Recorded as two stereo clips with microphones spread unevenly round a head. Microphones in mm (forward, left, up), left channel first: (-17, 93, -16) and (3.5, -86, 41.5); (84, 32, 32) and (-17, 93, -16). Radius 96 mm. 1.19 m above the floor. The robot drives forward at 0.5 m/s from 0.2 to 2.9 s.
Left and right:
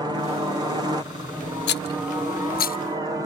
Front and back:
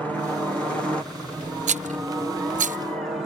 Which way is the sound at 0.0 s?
160° right.